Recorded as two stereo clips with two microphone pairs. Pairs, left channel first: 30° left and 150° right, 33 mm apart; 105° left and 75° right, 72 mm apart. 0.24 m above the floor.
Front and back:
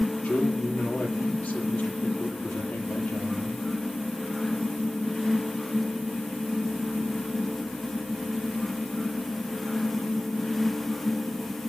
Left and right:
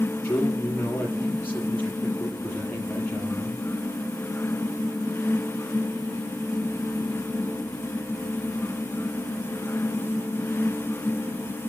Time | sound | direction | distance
0.2 | a man speaking | 40° left | 6.5 m